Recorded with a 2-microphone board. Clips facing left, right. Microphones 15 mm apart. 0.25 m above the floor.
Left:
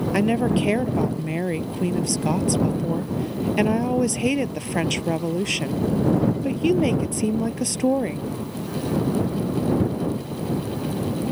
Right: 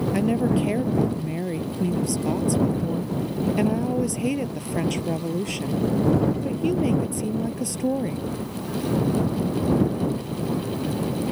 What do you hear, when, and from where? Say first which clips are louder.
0.1 s a woman speaking: left 2 dB; 25° left (ahead or behind)